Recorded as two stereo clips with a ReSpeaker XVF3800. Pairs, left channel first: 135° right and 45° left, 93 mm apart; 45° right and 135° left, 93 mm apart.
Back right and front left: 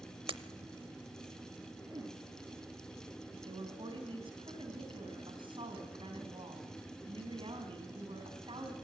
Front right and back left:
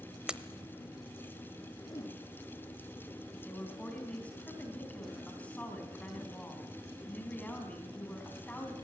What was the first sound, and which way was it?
Breaking glass, 55° left.